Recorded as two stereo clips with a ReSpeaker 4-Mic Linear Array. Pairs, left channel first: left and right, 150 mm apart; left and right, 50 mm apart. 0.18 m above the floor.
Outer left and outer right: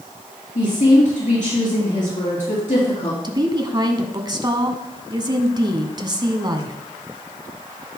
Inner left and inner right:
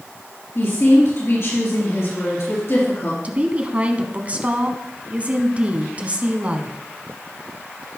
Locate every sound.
0.6 s a woman speaking: 55° left (ahead or behind), 3.5 m
3.2 s a woman speaking: 30° right (ahead or behind), 1.1 m